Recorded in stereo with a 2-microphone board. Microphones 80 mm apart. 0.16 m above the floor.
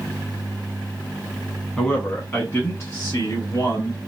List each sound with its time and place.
1.8 s a man speaking: 10° left (ahead or behind), 1.0 m; by 4.0 s 50° left (ahead or behind), 1.8 m